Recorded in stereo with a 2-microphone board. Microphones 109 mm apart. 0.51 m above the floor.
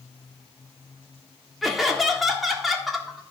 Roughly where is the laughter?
Centre.